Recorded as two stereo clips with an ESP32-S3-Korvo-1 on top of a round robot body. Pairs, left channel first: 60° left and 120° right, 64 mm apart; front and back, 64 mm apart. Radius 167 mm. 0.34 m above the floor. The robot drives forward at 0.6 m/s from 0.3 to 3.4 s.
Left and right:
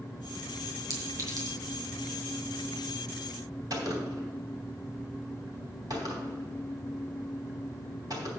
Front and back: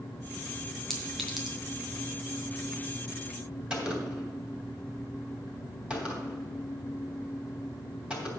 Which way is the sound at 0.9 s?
85° right.